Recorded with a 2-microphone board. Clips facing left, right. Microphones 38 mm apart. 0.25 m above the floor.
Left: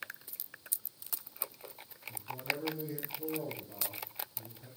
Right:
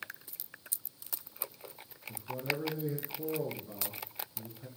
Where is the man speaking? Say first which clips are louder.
Right 2 dB; 45° right (ahead or behind), 3 m.